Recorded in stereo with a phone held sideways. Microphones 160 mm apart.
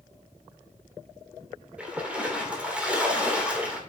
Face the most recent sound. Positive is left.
turn(degrees=-10)  # may be behind; listen again after turning